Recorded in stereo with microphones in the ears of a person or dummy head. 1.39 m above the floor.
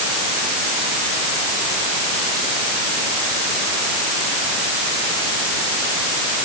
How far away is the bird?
No bird in this recording.